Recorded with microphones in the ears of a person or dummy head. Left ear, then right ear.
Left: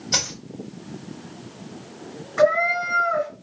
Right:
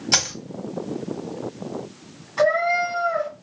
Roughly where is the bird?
I don't hear a bird.